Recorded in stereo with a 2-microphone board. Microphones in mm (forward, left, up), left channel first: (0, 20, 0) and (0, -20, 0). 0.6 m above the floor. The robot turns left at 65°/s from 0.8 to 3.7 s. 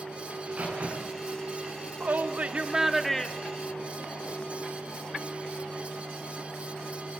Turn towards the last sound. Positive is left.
turn(degrees=135)